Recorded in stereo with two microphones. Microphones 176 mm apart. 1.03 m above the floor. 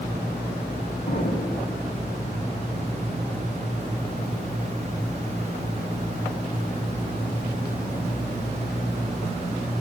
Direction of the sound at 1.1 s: 60° left (ahead or behind).